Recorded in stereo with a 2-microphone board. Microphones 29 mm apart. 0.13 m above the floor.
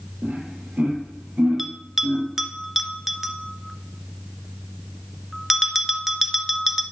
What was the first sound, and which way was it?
Laughter, 55° right (ahead or behind).